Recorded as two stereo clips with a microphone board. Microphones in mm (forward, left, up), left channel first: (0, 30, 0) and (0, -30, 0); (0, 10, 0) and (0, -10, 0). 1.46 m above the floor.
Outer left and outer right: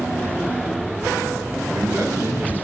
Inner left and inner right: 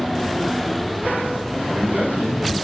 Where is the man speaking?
30° right (ahead or behind), 8 m.